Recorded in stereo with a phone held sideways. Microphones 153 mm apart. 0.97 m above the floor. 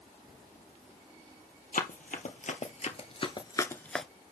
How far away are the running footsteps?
About 2.0 m.